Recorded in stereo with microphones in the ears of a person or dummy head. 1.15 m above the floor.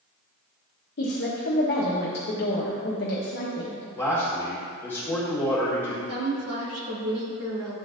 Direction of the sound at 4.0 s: 10° left (ahead or behind).